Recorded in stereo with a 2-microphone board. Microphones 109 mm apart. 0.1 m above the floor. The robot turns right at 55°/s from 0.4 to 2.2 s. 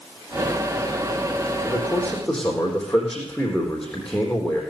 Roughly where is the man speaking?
Behind left.